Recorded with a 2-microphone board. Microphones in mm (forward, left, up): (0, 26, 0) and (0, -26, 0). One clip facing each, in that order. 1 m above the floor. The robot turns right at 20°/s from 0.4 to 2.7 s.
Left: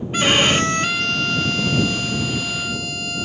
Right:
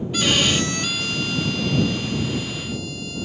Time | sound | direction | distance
0.1 | a violin | 35° left | ?